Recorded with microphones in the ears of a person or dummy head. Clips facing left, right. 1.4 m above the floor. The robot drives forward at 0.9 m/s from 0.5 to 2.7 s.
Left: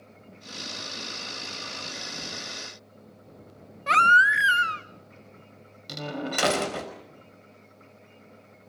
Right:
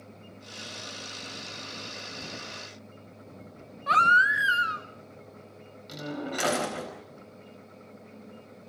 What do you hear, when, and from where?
3.9 s a baby crying: 30° left (ahead or behind), 1.2 m
5.9 s a door slam: 65° left (ahead or behind), 4.5 m